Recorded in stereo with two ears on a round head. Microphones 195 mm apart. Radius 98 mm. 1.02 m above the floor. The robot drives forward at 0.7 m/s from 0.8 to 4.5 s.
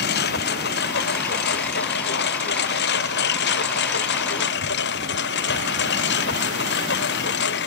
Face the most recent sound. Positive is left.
turn(degrees=50)  # may be behind; listen again after turning